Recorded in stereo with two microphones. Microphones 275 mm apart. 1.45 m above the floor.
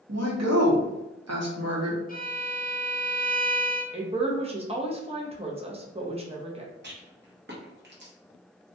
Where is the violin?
30° left (ahead or behind), 0.5 m.